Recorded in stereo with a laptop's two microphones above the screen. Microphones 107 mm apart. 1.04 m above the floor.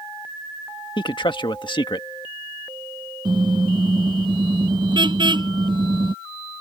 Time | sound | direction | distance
1.0 | a man speaking | 45° left (ahead or behind) | ?
3.2 | a car horn | 45° right (ahead or behind) | ?